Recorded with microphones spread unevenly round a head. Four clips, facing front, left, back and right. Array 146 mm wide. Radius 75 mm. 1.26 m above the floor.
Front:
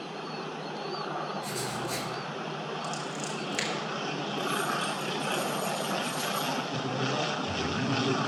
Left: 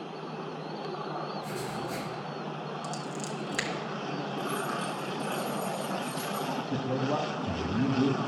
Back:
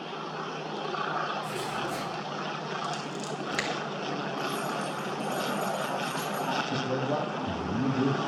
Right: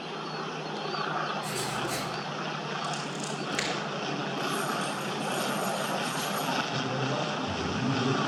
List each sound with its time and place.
1.4 s writing: 55° right, 4.5 m
2.8 s scissors: 145° left, 0.9 m
4.4 s keys jangling: 160° right, 3 m
6.7 s a man speaking: 125° left, 1.6 m